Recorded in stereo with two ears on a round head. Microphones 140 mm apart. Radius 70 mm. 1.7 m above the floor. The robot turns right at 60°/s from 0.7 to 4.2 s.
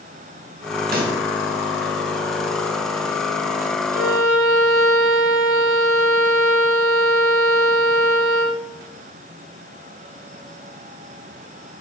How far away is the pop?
About 2 m.